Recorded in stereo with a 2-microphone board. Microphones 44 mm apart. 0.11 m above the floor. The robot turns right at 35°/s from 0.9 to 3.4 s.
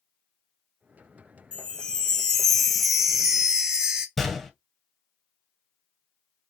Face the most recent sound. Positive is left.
turn(degrees=0)  # may be behind; listen again after turning